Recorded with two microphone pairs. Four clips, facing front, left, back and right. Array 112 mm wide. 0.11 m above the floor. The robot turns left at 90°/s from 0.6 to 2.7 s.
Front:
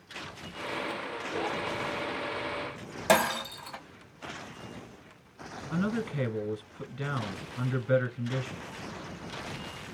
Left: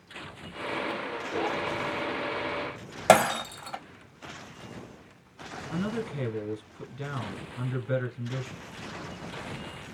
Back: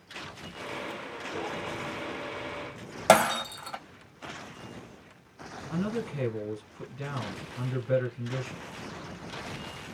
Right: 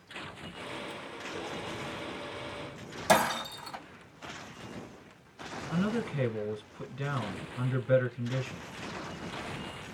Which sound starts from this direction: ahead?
A man speaking, at 5.7 s.